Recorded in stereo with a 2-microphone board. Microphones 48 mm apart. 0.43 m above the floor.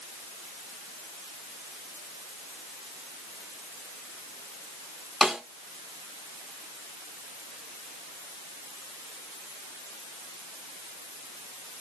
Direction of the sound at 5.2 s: Centre (ahead or behind).